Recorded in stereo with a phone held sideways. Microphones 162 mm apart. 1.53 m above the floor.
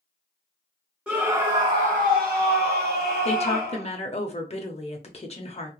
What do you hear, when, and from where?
1.1 s a scream: 5° right (ahead or behind), 0.7 m; by 3.9 s 70° right (ahead or behind), 1.5 m
3.2 s a woman speaking: 40° left (ahead or behind), 0.6 m